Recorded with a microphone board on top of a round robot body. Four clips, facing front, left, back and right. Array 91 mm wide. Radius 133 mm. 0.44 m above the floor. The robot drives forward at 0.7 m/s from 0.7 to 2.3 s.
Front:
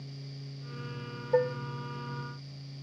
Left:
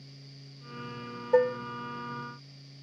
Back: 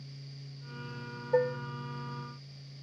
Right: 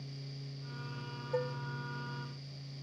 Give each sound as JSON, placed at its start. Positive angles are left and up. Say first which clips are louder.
{"t": 1.3, "sound": "dishes clattering", "louder": "left 13 dB, front 1 dB", "azimuth_deg": 90}